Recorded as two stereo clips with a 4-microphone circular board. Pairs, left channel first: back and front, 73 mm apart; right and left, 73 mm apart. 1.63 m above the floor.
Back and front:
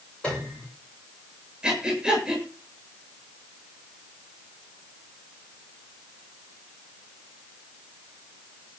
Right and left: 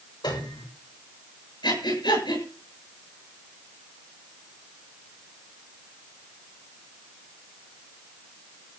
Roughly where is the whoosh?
I don't hear a whoosh.